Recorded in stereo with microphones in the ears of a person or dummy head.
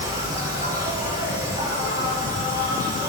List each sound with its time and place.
0.0 s an insect: 20° right (ahead or behind), 3 m